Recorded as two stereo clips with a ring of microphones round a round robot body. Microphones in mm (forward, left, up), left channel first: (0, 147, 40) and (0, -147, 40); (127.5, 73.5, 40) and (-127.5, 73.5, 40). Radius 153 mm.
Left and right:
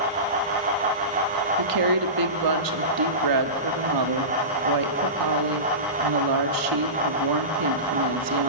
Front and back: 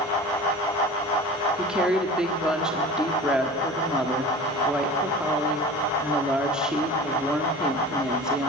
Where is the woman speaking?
95° right, 1.2 m.